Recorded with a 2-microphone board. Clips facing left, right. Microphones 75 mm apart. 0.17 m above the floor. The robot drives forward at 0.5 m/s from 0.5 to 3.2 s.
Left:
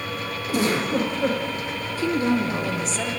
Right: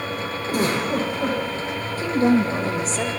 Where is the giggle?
50° right (ahead or behind), 8.5 m; by 1.4 s 45° right (ahead or behind), 9 m.